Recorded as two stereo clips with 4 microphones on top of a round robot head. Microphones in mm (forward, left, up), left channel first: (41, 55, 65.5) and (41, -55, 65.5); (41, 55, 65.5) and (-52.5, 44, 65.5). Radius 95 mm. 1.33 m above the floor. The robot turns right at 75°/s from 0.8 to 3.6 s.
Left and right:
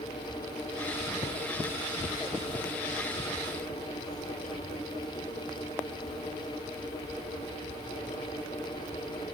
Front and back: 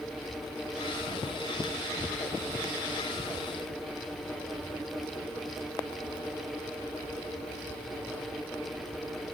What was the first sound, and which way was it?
Only background noise.